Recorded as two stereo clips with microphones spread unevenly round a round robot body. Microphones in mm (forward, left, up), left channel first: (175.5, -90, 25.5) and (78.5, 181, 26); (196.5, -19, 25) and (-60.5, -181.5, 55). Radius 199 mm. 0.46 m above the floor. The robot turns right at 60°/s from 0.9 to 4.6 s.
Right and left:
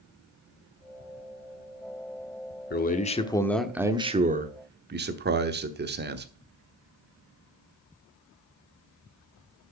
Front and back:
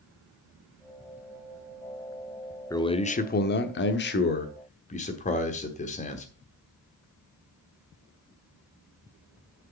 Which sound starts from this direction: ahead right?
A man speaking, at 2.7 s.